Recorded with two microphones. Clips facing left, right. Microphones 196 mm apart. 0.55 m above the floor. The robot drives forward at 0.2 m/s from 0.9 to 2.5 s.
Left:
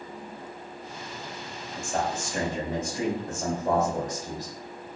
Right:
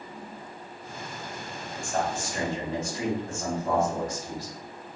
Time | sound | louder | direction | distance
1.7 | a man speaking | even | 20° left (ahead or behind) | 1.5 m